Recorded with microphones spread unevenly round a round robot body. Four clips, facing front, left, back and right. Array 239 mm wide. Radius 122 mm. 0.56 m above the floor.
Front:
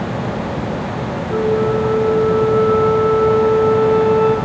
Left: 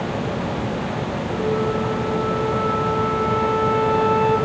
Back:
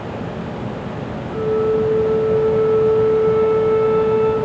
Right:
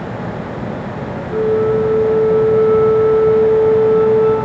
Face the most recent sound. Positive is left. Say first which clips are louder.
# right 9 dB, front 1 dB
turn(degrees=-40)